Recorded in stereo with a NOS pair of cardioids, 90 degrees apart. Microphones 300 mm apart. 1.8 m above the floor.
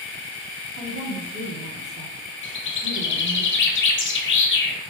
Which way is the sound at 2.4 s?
40° left.